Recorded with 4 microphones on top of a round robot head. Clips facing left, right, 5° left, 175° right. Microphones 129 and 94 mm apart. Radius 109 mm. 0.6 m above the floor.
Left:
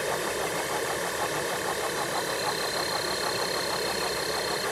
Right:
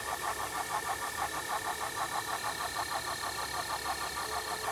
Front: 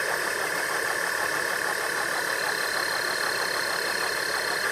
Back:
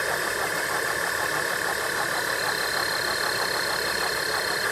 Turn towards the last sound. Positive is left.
turn(degrees=100)